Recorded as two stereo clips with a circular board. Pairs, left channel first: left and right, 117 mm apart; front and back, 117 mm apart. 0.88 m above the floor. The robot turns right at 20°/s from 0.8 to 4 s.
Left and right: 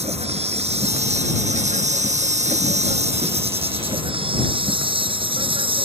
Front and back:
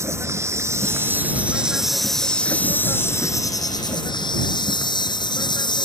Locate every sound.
0.0 s an insect: 115° right; by 5.9 s 50° right